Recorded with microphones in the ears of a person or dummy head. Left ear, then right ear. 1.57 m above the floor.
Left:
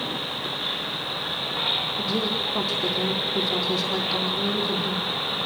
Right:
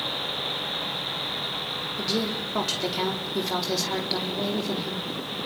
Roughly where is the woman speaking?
Right.